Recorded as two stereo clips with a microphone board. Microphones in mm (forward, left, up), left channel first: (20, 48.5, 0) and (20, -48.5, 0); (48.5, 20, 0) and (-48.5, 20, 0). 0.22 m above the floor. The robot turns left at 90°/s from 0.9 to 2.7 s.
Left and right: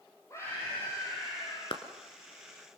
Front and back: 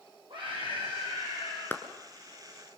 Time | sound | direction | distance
0.3 | a scream | 150° left | 8 m
1.7 | a clap | 70° left | 1.9 m